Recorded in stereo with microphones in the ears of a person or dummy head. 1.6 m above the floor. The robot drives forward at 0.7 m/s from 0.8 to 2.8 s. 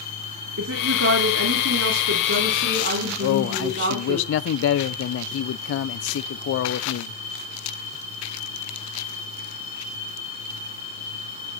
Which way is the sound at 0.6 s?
80° right.